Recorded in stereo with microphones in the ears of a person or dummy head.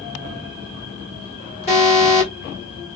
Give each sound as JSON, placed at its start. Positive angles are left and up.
{"t": 1.7, "sound": "an alarm", "side_deg": 30, "distance_m": 1.4}